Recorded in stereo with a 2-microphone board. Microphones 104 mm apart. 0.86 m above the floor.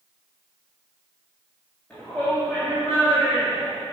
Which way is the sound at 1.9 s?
15° left (ahead or behind).